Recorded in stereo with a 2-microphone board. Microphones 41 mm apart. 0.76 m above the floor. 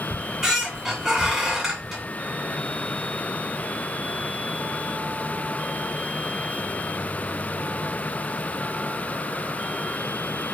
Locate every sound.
0.1 s a squeak: 5° right (ahead or behind), 1.2 m